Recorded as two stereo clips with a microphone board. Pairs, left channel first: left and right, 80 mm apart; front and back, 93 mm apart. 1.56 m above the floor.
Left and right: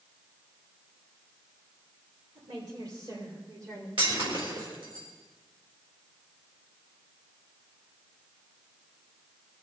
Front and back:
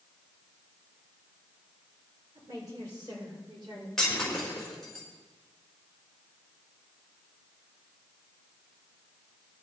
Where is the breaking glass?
85° right, 4.5 m.